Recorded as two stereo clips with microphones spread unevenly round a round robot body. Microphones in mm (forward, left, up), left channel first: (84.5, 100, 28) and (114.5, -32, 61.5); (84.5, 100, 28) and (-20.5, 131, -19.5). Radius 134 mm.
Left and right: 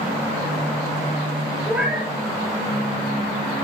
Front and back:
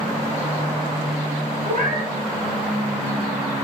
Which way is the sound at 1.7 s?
165° right.